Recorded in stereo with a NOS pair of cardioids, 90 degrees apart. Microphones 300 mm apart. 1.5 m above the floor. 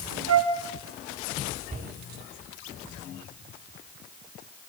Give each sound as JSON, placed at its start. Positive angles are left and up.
{"t": 0.3, "sound": "a flute", "azimuth_deg": -60, "distance_m": 5.0}
{"t": 1.7, "sound": "a cupboard door", "azimuth_deg": -25, "distance_m": 9.0}